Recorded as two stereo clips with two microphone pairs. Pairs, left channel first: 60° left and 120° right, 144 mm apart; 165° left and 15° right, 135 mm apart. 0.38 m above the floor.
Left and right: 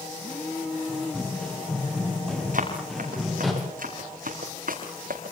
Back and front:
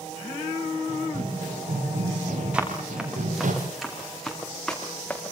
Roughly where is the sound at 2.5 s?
Right.